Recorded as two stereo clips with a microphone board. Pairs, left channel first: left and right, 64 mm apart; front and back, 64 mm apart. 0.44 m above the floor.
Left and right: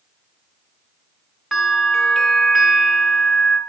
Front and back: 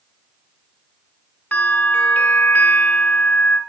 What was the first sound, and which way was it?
A bell, straight ahead.